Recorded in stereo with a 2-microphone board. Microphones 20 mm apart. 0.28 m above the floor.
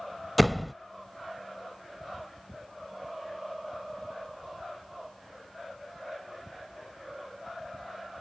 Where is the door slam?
Centre (ahead or behind).